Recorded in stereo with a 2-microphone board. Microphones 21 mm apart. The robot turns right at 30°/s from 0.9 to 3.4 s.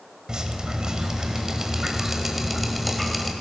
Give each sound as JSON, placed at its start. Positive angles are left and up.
{"t": 0.3, "sound": "dripping", "azimuth_deg": -65, "distance_m": 1.3}